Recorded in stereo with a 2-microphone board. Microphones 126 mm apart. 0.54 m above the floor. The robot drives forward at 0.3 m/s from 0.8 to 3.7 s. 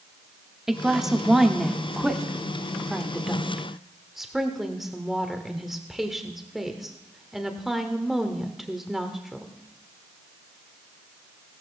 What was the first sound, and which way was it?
A woman speaking, 5° right (ahead or behind).